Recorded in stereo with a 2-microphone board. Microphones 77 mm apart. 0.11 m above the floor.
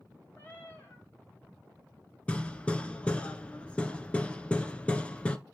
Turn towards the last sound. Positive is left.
turn(degrees=15)  # may be behind; listen again after turning